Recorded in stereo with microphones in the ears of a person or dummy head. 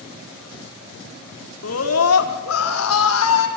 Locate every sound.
1.6 s a scream: 80° left, 3.5 m; by 3.5 s 85° left, 6 m